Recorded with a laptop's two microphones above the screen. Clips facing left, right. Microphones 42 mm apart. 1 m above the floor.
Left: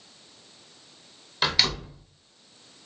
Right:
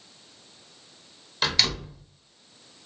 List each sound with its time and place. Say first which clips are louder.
1.4 s a door slam: left 1 dB; 5° left (ahead or behind), 0.9 m